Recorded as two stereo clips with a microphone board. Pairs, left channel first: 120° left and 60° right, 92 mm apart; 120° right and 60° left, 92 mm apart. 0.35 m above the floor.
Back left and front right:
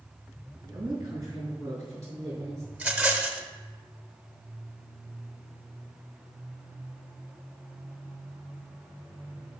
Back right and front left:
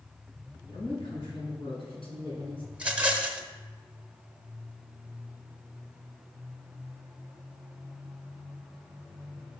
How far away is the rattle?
About 0.8 m.